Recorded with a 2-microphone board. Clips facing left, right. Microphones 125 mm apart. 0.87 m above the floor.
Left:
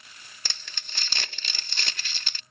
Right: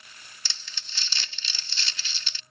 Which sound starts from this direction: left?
Crumpling, at 0.5 s.